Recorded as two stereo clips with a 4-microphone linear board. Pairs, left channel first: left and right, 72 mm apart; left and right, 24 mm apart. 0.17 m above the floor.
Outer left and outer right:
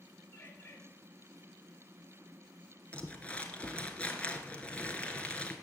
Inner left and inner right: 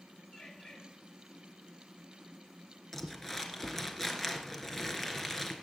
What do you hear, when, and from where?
0.3 s a bird: 30° left (ahead or behind), 3.5 m
2.9 s crumpling: 15° left (ahead or behind), 2.0 m